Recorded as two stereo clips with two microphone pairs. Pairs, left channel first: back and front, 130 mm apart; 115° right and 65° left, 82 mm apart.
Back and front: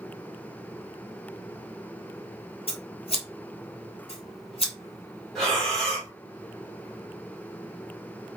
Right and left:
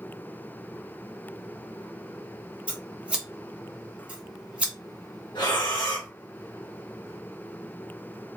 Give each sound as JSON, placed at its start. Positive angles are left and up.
{"t": 2.7, "sound": "scissors", "azimuth_deg": 140, "distance_m": 0.7}
{"t": 5.3, "sound": "breathing", "azimuth_deg": -95, "distance_m": 1.1}